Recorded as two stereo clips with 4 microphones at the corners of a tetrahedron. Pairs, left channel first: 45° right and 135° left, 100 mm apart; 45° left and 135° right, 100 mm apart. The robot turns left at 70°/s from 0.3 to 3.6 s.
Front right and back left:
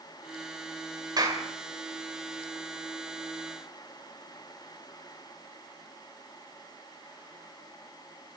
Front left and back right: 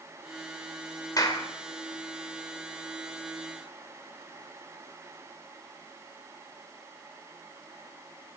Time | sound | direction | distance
1.2 | a clap | 95° left | 2 m